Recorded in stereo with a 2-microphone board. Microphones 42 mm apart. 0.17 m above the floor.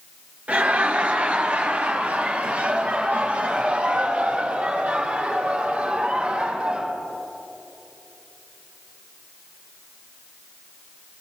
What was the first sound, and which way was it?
Laughter, 35° right (ahead or behind).